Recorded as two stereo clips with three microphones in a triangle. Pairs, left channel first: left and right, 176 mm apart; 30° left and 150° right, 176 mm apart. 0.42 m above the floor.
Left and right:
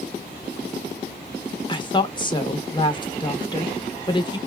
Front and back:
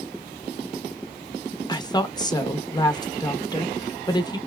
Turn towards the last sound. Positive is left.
turn(degrees=65)